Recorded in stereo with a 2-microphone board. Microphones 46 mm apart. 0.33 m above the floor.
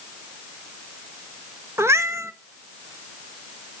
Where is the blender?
I don't hear a blender.